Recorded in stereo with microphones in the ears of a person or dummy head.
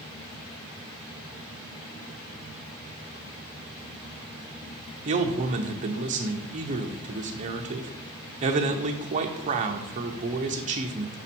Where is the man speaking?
35° right (ahead or behind), 0.8 m.